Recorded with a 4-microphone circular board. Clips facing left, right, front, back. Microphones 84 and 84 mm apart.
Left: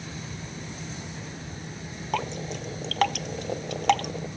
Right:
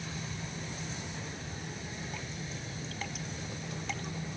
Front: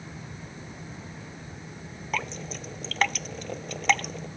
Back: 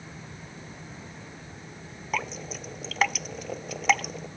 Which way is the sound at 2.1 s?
95° left.